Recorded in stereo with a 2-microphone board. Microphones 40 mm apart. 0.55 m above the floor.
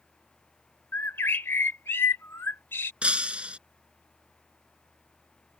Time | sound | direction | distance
0.9 | a bird | 80° left | ?
3.0 | breaking glass | 30° right (ahead or behind) | ?